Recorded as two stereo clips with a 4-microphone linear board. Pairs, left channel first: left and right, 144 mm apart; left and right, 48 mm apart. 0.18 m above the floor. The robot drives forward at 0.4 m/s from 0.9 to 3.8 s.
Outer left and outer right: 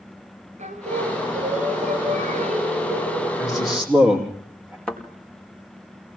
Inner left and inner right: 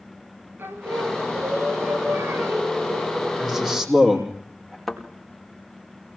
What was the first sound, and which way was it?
Singing, 55° right (ahead or behind).